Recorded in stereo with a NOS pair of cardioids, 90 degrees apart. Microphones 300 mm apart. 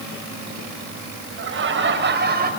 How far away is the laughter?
About 7 m.